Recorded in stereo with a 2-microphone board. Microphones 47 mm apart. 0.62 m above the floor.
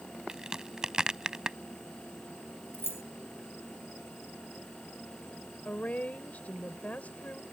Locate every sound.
0.3 s a crack: 15° right (ahead or behind)
2.7 s keys jangling: 50° left (ahead or behind)
5.7 s a woman speaking: 35° left (ahead or behind)